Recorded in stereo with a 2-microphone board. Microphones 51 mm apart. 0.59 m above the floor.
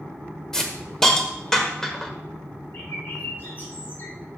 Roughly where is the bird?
Left.